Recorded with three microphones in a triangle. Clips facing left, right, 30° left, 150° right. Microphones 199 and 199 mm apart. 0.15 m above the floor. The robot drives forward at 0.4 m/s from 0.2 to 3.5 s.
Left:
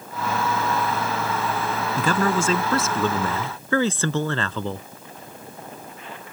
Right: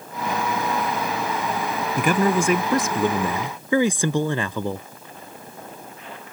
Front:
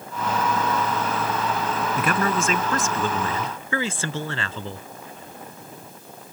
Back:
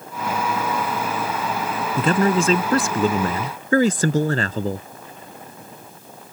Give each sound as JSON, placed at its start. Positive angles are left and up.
{"t": 2.0, "sound": "a man speaking", "azimuth_deg": -140}